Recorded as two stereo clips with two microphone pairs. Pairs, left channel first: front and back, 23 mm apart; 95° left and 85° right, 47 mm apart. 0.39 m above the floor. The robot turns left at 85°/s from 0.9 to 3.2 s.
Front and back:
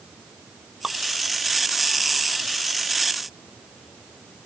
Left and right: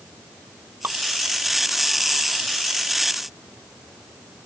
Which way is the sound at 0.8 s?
120° right.